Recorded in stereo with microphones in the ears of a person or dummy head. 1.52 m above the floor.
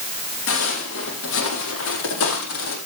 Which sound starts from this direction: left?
Footsteps, at 0.5 s.